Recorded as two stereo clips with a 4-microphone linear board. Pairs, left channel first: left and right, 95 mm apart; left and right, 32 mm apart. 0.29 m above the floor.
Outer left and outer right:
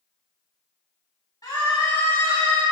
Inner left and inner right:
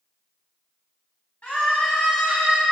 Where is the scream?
45° left (ahead or behind), 2.5 m; by 2.6 s 20° left (ahead or behind), 2.0 m.